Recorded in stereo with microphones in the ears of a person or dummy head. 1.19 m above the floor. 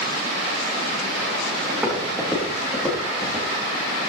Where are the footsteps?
5° right (ahead or behind), 3.5 m; by 3.5 s 5° left (ahead or behind), 5.5 m.